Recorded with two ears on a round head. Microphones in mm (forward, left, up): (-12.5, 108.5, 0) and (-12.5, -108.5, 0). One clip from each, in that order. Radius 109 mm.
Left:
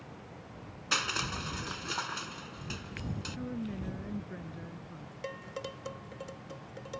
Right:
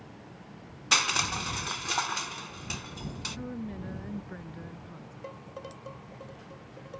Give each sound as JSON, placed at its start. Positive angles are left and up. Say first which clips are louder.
{"t": 0.9, "sound": "crushing", "louder": "right 6 dB", "side_deg": -25}
{"t": 3.4, "sound": "a woman speaking", "louder": "even", "side_deg": -15}
{"t": 5.2, "sound": "dishes clattering", "louder": "left 3 dB", "side_deg": 60}